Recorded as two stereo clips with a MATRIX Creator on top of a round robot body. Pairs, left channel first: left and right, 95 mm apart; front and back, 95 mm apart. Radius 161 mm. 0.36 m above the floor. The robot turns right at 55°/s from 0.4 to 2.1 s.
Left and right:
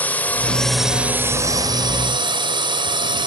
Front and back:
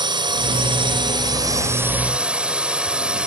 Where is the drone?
160° left; by 3.3 s 100° right.